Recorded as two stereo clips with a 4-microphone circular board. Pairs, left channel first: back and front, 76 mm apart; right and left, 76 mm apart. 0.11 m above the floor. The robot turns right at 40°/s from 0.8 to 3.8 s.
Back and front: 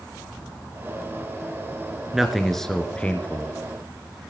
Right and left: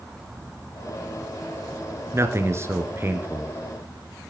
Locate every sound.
2.1 s a man speaking: 80° left, 1.7 m; by 3.5 s 135° left, 1.7 m